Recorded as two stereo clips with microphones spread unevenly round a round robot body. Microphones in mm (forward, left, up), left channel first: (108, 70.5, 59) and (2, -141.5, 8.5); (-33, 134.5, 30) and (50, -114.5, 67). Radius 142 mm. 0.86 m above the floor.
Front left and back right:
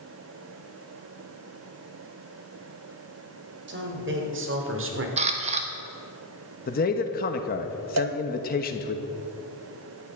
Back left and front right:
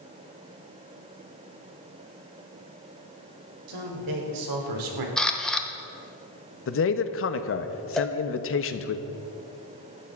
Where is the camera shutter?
170° right, 1.0 m.